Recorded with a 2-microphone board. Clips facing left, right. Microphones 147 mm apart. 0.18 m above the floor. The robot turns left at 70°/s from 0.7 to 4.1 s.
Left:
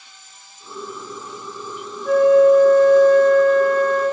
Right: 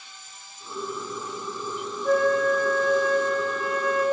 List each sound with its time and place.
2.0 s a flute: 170° right, 1.0 m; by 4.0 s 50° left, 1.0 m